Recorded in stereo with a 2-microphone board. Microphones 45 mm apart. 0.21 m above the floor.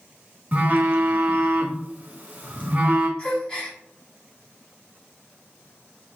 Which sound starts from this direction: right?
A phone buzzing, at 0.5 s.